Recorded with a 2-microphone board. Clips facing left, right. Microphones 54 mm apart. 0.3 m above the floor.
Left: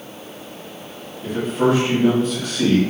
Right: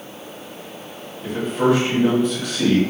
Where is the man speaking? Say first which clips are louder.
Even; 5° right (ahead or behind), 1.2 m.